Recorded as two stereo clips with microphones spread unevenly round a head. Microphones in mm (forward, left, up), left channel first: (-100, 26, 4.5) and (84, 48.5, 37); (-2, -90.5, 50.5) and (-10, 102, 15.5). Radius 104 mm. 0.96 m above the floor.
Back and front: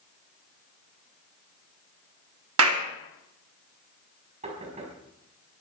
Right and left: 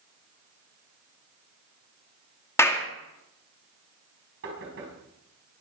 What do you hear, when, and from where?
2.6 s a clap: 5° right, 2 m
4.4 s knocking: 60° left, 5.5 m